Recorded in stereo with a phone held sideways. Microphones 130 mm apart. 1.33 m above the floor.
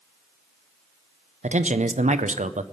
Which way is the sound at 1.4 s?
75° right (ahead or behind).